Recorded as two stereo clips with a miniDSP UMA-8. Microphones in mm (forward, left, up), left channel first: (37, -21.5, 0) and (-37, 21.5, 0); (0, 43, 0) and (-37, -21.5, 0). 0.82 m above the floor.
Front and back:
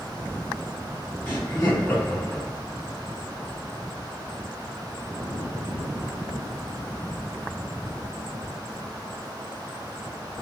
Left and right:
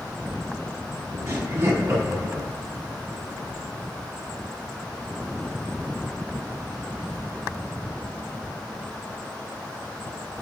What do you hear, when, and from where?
1.3 s laughter: 100° right, 1.0 m